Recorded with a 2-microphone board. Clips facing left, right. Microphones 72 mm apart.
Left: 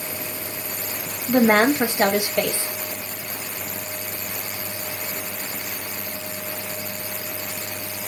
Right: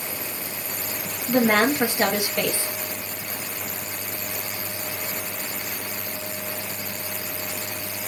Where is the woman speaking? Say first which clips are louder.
Left 3 dB; 25° left (ahead or behind), 0.8 m.